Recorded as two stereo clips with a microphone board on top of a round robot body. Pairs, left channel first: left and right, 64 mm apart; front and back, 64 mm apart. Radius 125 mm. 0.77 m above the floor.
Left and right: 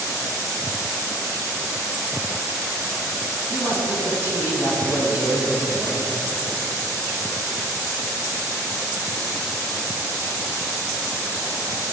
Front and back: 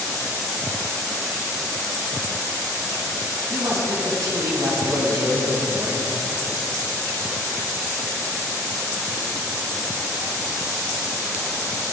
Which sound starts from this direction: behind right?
A man speaking, at 3.5 s.